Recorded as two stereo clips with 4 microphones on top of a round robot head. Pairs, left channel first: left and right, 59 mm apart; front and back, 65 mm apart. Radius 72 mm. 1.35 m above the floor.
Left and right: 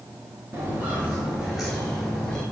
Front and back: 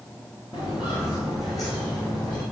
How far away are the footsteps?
About 1.5 m.